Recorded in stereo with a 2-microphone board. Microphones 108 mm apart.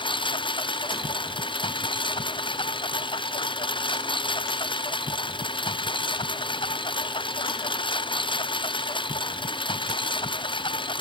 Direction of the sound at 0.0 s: 50° left (ahead or behind).